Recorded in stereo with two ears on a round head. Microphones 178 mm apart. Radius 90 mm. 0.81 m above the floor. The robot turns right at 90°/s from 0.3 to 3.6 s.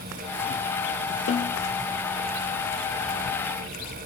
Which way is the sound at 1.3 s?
80° left.